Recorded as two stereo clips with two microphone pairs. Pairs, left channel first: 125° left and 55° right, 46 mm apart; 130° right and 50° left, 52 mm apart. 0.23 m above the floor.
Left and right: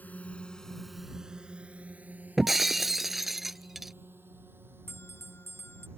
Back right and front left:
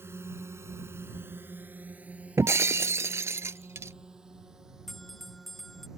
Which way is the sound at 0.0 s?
80° left.